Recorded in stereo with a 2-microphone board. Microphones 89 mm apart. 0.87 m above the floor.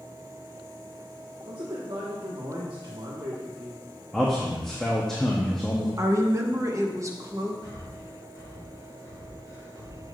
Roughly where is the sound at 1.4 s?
Right.